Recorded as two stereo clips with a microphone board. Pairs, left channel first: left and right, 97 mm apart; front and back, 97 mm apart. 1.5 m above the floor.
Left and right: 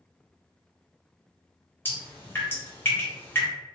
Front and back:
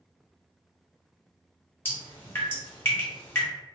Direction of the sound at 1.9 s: 45° left.